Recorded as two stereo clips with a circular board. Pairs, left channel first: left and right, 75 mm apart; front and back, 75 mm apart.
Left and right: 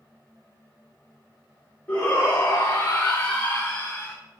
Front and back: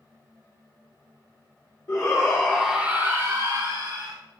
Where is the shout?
25° left, 1.5 m; by 4.2 s 170° left, 2.5 m.